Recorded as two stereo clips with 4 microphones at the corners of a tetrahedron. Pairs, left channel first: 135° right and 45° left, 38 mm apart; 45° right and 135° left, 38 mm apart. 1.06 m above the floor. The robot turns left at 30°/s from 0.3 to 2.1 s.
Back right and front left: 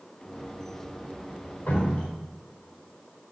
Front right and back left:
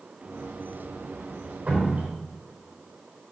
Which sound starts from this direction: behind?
Dripping, at 1.7 s.